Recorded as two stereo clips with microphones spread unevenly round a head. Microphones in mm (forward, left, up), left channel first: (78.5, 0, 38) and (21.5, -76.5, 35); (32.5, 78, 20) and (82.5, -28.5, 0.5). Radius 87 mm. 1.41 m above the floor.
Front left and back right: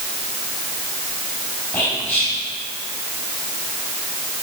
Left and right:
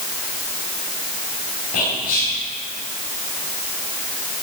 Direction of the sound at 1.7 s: 130° left.